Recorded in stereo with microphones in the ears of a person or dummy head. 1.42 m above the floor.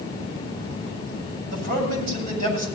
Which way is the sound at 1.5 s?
50° right (ahead or behind).